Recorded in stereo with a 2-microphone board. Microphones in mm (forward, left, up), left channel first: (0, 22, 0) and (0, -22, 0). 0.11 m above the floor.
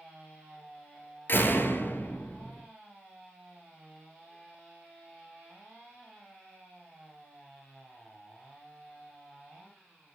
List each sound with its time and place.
1.3 s a door slam: 50° left (ahead or behind), 1.6 m